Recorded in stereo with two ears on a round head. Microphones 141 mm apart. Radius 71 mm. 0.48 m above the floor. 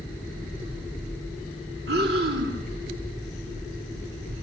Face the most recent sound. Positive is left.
turn(degrees=-70)  # may be behind; listen again after turning